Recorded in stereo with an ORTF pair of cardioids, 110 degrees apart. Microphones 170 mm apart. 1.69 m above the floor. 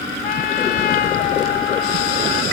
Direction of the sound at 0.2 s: 65° left.